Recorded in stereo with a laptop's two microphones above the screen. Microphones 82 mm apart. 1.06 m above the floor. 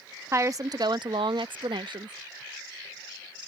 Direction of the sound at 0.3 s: 35° right (ahead or behind).